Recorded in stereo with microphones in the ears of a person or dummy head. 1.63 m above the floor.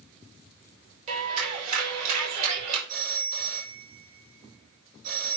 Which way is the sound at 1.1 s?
40° right (ahead or behind).